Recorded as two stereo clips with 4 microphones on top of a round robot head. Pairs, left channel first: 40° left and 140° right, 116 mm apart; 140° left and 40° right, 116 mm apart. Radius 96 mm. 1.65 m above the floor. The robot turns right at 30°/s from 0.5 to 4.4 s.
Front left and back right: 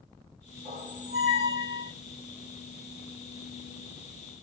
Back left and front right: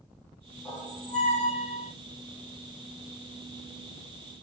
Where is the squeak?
150° right, 0.8 m; by 1.9 s 110° right, 0.8 m.